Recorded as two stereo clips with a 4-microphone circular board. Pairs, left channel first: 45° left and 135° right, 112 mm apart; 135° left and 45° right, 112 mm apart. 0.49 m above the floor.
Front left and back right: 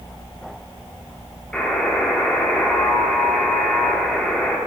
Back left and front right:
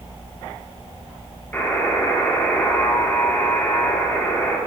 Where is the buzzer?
110° left, 1.4 m.